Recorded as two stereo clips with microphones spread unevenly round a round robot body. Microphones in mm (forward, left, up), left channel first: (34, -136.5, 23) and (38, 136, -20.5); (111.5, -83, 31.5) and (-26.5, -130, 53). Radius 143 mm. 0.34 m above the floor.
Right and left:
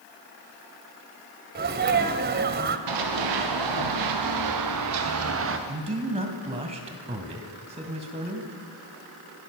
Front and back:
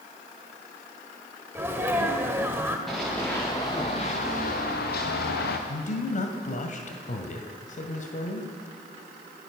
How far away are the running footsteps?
About 4 m.